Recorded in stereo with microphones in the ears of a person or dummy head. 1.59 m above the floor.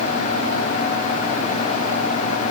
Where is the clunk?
I don't hear a clunk.